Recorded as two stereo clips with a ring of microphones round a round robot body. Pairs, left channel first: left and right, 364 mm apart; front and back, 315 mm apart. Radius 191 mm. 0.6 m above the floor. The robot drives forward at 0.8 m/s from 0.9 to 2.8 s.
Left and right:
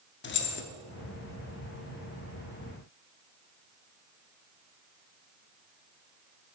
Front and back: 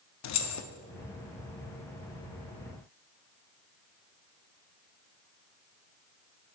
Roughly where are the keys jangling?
Ahead left.